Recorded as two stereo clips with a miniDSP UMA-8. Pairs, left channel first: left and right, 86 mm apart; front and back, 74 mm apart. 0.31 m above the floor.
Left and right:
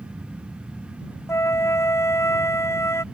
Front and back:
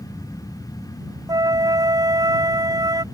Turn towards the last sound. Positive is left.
turn(degrees=150)